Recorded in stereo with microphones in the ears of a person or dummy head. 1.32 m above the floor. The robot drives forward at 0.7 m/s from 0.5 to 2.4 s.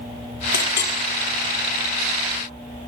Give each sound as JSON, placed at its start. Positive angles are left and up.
{"t": 0.5, "sound": "a clink", "side_deg": 60, "distance_m": 3.0}